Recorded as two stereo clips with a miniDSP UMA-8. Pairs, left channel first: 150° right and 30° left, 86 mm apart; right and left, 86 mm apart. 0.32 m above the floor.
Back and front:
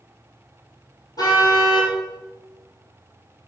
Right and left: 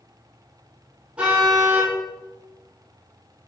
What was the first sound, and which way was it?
A car horn, 165° left.